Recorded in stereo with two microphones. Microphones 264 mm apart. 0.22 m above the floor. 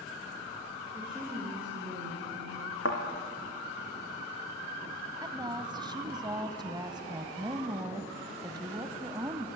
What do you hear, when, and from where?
0.9 s a woman speaking: 5° right (ahead or behind), 8 m
2.9 s a thud: 55° left (ahead or behind), 3.5 m
5.2 s a woman speaking: 15° right (ahead or behind), 1.4 m